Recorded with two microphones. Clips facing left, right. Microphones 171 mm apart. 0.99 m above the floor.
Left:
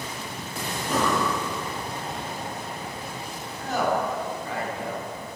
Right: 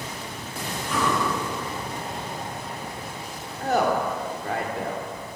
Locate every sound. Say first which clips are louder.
0.8 s breathing: left 1 dB; 40° left (ahead or behind), 2.5 m
3.6 s a woman speaking: right 3 dB; 60° right (ahead or behind), 2.5 m